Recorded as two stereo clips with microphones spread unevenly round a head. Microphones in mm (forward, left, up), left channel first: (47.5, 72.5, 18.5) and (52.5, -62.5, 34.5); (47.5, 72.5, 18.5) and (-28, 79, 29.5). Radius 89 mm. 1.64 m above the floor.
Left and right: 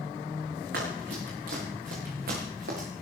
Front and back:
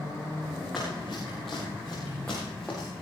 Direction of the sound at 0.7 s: 95° right.